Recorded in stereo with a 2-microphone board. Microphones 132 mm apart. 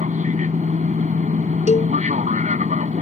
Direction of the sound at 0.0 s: 70° right (ahead or behind).